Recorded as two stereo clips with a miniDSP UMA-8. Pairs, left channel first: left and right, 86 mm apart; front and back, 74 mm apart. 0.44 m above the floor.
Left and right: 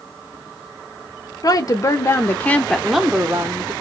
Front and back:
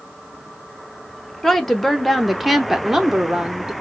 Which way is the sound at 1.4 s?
85° left.